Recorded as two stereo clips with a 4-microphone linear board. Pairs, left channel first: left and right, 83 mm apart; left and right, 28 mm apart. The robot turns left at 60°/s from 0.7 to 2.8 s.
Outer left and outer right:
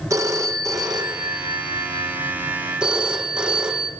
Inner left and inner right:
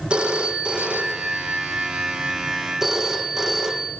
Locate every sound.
0.1 s a phone ringing: 40° right, 4.5 m; by 3.9 s 170° right, 4.5 m